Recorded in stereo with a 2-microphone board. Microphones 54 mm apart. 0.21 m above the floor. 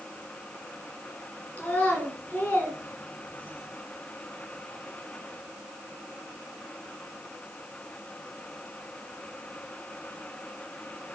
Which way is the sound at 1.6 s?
25° left (ahead or behind).